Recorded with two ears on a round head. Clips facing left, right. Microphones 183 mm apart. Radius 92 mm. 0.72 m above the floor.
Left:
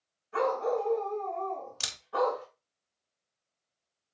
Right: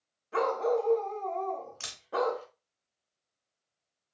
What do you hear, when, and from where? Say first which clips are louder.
0.3 s a dog barking: right 1 dB; 75° right (ahead or behind), 1.3 m
1.8 s a camera shutter: left 2 dB; 50° left (ahead or behind), 0.6 m